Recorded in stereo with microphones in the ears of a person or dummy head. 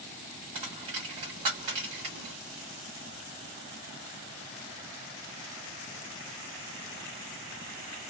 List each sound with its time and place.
0.6 s a dropped coin: 25° right (ahead or behind), 0.9 m